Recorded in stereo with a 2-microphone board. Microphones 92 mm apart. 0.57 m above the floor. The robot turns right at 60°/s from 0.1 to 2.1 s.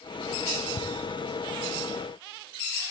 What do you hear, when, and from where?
0.8 s ticking: 75° left (ahead or behind), 0.6 m